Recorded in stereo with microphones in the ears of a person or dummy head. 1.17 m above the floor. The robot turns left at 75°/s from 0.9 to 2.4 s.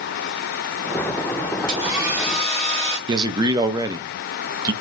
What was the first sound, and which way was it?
A hair dryer, 135° right.